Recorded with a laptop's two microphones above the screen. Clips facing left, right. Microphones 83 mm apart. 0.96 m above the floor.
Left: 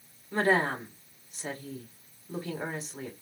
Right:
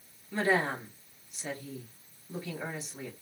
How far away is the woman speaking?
About 3 m.